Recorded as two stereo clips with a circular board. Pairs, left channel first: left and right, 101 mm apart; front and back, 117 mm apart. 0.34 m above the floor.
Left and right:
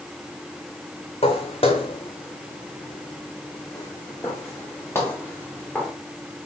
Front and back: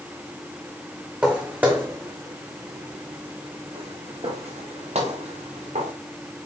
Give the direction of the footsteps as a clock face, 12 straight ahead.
9 o'clock.